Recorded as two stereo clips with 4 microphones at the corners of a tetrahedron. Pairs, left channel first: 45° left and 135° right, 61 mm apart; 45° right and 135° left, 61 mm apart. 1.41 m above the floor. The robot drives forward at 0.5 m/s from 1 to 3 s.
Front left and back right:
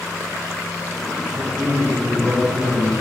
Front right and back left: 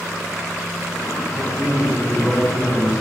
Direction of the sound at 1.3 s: 150° right.